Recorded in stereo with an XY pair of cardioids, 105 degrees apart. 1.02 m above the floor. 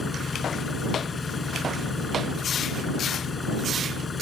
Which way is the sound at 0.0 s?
30° left.